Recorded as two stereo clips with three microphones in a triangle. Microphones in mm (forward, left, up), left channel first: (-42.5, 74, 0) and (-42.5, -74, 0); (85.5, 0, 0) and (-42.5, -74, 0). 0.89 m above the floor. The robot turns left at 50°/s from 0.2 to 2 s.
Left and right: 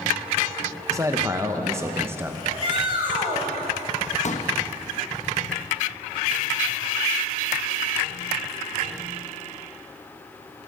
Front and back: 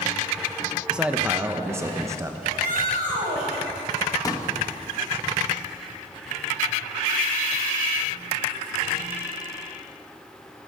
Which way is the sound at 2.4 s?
140° right.